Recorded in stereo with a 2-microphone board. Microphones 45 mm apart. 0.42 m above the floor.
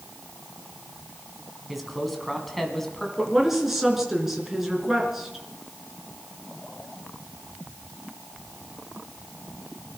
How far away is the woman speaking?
About 4.5 m.